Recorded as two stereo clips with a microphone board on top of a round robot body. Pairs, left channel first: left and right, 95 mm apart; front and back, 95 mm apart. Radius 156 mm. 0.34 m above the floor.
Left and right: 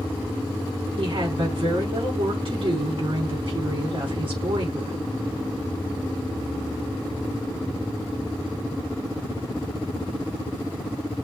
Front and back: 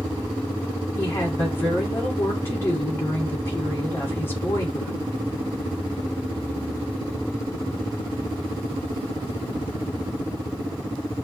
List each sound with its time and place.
1.0 s a woman speaking: 65° right, 4.5 m